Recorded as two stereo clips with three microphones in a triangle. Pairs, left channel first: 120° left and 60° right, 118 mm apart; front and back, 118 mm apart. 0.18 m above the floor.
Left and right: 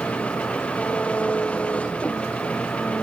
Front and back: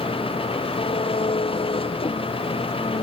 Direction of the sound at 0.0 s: 40° left.